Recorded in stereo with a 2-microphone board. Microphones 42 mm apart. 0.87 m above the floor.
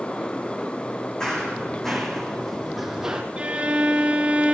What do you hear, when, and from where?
1.2 s running footsteps: 15° left (ahead or behind), 3.5 m; by 3.2 s 15° right (ahead or behind), 2 m
3.4 s a violin: 25° right (ahead or behind), 3 m